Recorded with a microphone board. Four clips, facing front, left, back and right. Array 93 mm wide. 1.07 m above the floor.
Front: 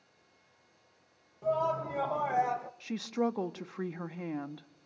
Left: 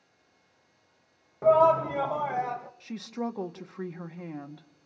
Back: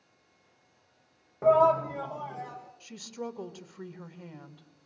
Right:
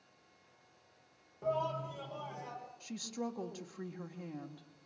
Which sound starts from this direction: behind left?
A shout, at 1.4 s.